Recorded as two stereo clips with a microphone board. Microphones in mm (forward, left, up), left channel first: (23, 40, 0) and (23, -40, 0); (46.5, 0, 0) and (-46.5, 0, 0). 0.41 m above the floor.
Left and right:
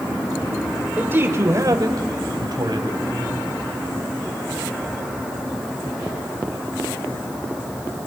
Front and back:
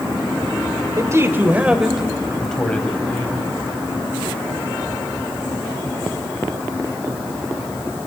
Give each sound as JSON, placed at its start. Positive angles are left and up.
{"t": 1.0, "sound": "a man speaking", "azimuth_deg": -150, "distance_m": 1.7}